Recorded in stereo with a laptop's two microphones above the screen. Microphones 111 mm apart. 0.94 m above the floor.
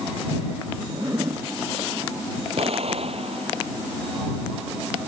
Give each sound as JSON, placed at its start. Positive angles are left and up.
{"t": 0.9, "sound": "a zipper", "side_deg": -30}
{"t": 2.6, "sound": "an explosion", "side_deg": -65}